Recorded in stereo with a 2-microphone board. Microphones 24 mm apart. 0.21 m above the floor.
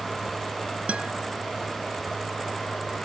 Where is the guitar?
65° right (ahead or behind).